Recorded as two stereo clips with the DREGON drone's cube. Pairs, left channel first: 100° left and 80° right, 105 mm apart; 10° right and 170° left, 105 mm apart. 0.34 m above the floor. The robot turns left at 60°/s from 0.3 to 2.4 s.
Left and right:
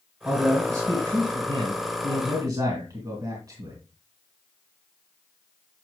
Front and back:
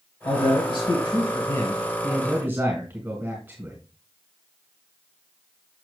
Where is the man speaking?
5° left, 2 m; by 3.8 s 125° right, 2 m.